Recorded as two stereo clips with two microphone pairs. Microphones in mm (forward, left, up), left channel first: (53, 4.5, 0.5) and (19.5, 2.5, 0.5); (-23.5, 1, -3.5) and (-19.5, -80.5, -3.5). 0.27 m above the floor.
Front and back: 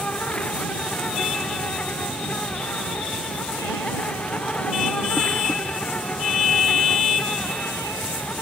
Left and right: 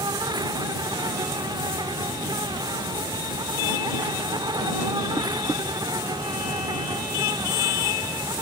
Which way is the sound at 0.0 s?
55° right.